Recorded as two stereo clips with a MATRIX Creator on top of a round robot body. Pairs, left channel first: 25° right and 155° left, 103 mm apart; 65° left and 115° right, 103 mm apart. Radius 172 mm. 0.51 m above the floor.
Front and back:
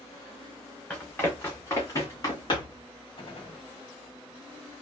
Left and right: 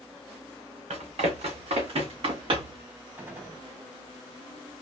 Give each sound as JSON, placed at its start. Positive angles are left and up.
{"t": 0.9, "sound": "running footsteps", "azimuth_deg": -100, "distance_m": 3.0}
{"t": 3.2, "sound": "a gunshot", "azimuth_deg": -45, "distance_m": 2.5}